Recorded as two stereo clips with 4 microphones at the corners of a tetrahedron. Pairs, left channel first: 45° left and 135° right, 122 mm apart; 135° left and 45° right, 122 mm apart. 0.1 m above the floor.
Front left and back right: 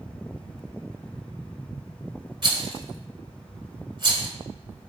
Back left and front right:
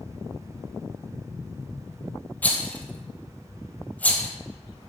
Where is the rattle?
155° right, 0.7 m.